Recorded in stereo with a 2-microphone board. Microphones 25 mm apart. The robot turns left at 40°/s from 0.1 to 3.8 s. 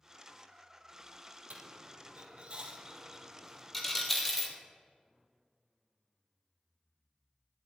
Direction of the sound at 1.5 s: 75° right (ahead or behind).